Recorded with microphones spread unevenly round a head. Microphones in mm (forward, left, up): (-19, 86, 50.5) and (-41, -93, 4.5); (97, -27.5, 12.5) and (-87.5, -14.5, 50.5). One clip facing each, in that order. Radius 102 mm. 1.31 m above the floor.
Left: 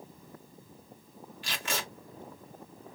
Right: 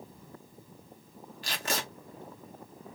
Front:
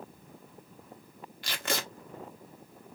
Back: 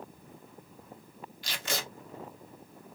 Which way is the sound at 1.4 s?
35° right.